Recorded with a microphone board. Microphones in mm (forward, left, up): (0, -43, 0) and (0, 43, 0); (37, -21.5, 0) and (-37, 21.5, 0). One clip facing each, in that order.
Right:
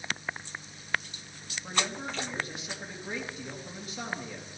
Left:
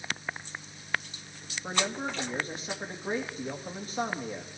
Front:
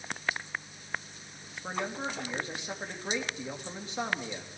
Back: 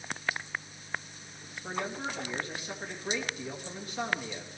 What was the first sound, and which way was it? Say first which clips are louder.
A man speaking: left 2 dB, front 1 dB; 35° left.